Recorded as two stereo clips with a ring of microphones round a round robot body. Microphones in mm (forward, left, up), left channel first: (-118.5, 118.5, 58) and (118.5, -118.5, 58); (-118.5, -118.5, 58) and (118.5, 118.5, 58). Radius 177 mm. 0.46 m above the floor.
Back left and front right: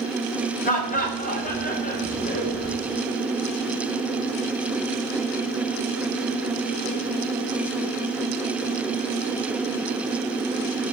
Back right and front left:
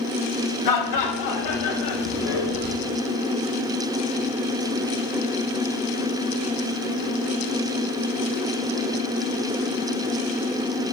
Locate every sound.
0.7 s laughter: 160° right, 3.5 m